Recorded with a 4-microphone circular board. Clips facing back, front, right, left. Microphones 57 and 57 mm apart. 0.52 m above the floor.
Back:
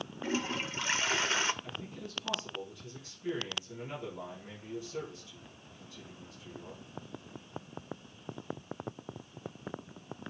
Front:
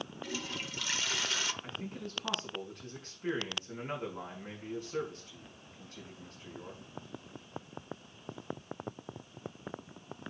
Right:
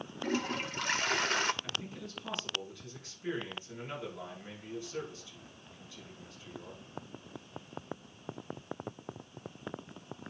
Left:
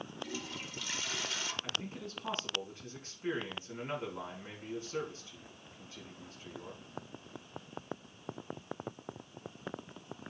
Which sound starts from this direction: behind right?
A toilet flushing, at 0.2 s.